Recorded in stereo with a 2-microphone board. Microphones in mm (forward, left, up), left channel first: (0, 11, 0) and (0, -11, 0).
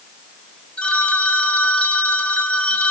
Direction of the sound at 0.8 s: 50° left (ahead or behind).